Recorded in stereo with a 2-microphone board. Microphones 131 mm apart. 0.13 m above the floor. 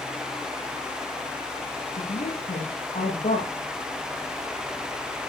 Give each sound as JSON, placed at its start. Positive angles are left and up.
{"t": 2.0, "sound": "a woman speaking", "side_deg": 70, "distance_m": 4.0}